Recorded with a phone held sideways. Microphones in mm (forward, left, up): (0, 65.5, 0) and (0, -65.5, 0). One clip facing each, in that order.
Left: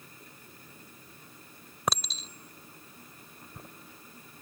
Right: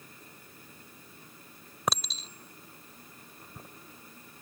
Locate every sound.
1.9 s a clink: centre (ahead or behind)